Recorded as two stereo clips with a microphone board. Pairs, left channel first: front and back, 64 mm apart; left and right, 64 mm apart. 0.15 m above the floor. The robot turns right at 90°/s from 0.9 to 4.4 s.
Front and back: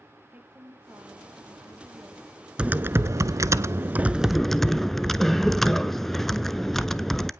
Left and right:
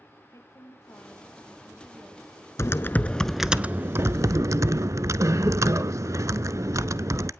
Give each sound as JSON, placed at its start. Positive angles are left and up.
{"t": 0.3, "sound": "a woman speaking", "azimuth_deg": 120, "distance_m": 3.5}
{"t": 2.6, "sound": "typing on a keyboard", "azimuth_deg": 110, "distance_m": 0.6}